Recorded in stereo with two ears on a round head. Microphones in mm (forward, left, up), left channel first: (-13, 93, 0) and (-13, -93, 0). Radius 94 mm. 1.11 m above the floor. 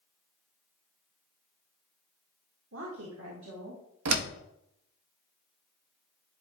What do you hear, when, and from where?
2.7 s a woman speaking: 60° right (ahead or behind), 1.3 m; by 3.8 s 75° right (ahead or behind), 2 m
4.0 s a door slam: 85° right, 0.7 m